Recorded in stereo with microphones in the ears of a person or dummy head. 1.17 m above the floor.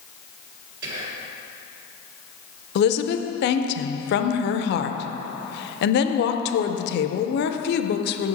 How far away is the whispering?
About 1.7 m.